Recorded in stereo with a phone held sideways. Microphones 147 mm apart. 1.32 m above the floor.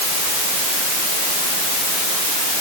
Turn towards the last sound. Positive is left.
No sound to turn to.